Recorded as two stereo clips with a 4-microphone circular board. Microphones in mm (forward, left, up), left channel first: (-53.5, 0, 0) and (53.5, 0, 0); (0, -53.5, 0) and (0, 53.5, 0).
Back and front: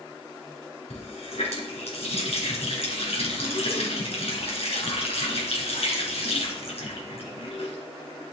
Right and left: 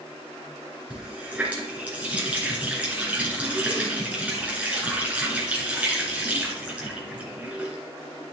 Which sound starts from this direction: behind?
A running tap, at 0.9 s.